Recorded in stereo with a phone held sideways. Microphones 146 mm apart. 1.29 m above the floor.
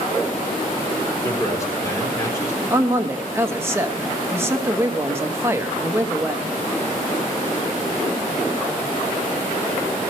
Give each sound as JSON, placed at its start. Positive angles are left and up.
{"t": 1.2, "sound": "a man speaking", "side_deg": 20, "distance_m": 4.0}
{"t": 2.7, "sound": "a man speaking", "side_deg": -15, "distance_m": 1.0}